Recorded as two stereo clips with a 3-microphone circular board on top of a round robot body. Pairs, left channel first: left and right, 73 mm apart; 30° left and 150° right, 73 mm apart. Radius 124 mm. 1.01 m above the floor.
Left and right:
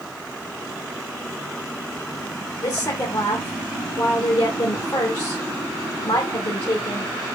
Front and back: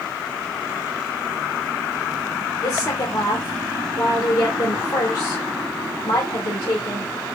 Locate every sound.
2.6 s a woman speaking: 65° left, 1.6 m